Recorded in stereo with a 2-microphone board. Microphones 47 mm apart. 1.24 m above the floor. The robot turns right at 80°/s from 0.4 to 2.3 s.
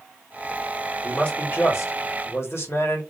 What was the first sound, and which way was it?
A man speaking, 10° left.